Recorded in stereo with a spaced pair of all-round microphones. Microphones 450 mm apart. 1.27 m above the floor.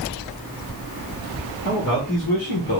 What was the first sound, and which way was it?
A man speaking, 40° left (ahead or behind).